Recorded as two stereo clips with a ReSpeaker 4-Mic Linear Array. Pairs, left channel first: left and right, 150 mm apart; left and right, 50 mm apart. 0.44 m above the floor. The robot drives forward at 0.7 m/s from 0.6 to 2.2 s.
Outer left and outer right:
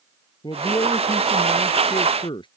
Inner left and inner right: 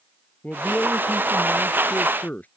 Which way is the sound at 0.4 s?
30° left (ahead or behind).